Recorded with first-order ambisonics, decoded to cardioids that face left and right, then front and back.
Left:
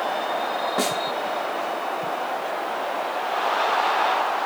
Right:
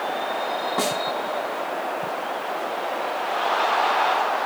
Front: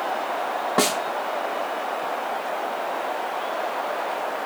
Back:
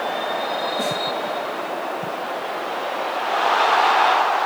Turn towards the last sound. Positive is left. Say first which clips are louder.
# even, front 2 dB
turn(degrees=0)